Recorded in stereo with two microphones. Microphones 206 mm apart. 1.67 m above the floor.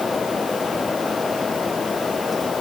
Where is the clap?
No clap in this recording.